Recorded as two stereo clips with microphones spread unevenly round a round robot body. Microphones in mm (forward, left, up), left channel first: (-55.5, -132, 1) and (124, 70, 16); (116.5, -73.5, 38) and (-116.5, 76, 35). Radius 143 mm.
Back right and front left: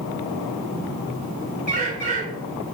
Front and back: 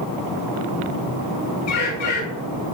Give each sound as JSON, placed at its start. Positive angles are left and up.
{"t": 1.7, "sound": "a bird", "azimuth_deg": -15, "distance_m": 2.5}